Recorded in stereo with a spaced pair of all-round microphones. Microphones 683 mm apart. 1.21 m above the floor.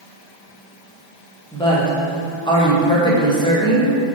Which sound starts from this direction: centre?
A woman speaking, at 1.5 s.